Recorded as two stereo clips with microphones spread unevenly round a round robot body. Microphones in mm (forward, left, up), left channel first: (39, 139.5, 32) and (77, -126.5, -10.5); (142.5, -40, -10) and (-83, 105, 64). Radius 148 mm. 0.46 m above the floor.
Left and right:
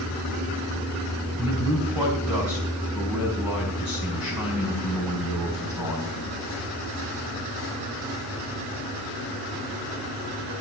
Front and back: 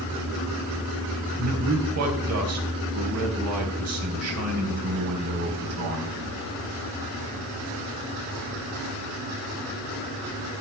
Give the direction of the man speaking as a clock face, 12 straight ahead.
6 o'clock.